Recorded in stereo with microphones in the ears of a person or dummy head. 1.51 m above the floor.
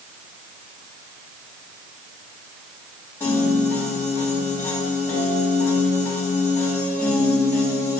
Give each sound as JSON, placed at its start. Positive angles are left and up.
{"t": 3.2, "sound": "a piano", "side_deg": 10, "distance_m": 2.5}